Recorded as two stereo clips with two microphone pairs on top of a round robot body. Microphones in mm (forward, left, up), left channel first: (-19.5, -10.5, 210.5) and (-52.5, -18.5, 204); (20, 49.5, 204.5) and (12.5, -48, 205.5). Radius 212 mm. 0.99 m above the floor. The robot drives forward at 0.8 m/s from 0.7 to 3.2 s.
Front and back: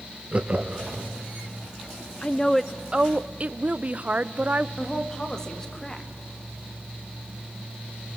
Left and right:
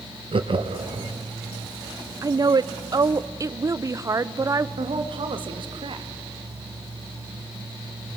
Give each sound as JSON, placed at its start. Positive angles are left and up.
{"t": 0.3, "sound": "laughter", "azimuth_deg": -115, "distance_m": 1.7}
{"t": 2.2, "sound": "a woman speaking", "azimuth_deg": -50, "distance_m": 0.7}
{"t": 4.8, "sound": "a woman speaking", "azimuth_deg": -65, "distance_m": 2.0}